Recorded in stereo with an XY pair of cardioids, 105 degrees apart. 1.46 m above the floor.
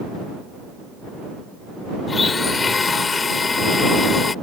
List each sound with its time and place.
2.1 s a blender: 35° left